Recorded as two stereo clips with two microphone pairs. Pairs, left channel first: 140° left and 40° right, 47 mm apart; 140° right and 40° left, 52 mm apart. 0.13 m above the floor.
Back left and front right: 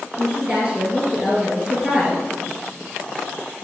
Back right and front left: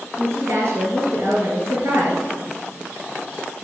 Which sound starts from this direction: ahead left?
A woman speaking, at 0.2 s.